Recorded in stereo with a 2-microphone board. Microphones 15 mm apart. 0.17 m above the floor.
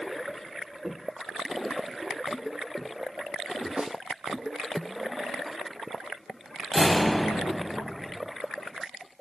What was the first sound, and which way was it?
Footsteps, 20° right (ahead or behind).